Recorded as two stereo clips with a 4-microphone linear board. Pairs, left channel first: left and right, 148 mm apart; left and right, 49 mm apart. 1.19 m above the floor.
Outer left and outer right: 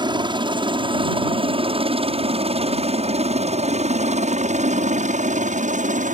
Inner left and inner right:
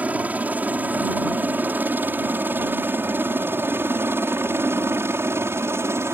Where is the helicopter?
30° right (ahead or behind); by 6.1 s 60° right (ahead or behind).